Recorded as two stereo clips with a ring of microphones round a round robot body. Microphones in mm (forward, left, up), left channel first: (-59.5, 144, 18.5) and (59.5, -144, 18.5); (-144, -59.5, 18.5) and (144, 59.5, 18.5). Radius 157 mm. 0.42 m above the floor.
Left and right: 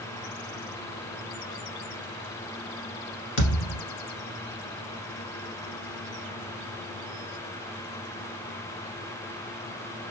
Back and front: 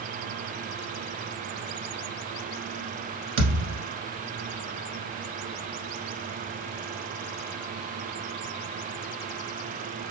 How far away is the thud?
About 1.3 m.